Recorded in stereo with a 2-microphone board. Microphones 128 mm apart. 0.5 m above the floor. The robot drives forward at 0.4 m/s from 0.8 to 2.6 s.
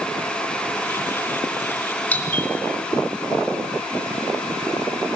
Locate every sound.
2.1 s a doorbell: 10° left (ahead or behind), 1.2 m